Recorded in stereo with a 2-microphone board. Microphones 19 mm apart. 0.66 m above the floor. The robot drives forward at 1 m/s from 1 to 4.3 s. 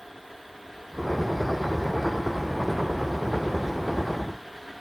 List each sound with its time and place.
Only background noise.